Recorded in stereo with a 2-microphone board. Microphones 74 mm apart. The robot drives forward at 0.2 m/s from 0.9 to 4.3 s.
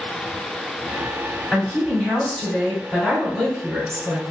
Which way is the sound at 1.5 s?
10° left (ahead or behind).